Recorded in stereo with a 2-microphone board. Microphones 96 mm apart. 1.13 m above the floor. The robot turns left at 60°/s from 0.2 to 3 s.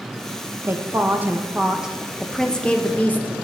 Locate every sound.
0.7 s a woman speaking: 25° right (ahead or behind), 0.5 m; by 3.3 s 20° left (ahead or behind), 0.5 m